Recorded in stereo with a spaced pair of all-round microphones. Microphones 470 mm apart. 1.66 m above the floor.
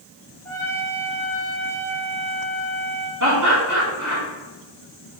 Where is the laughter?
40° right (ahead or behind), 3.5 m.